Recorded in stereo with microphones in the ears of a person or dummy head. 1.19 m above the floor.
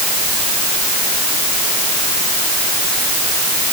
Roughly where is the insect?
I don't hear an insect.